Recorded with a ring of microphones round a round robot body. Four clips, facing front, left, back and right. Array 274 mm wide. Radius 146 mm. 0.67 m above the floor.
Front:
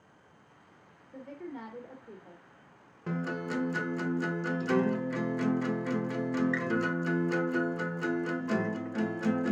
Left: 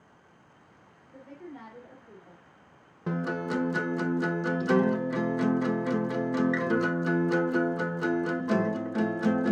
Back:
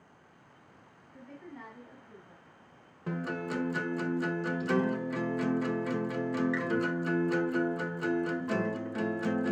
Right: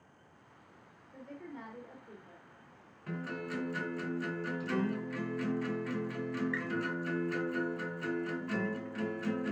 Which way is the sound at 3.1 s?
85° left.